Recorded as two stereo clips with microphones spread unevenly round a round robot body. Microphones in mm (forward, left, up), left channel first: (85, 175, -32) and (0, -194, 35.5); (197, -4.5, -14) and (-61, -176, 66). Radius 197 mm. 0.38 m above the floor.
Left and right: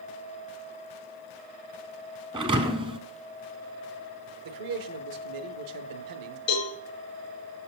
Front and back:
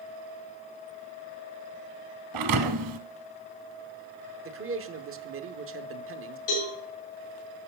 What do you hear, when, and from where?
2.3 s a thud: straight behind, 0.6 m
4.5 s a man speaking: 100° right, 1.1 m
6.5 s a cowbell: 25° left, 6.5 m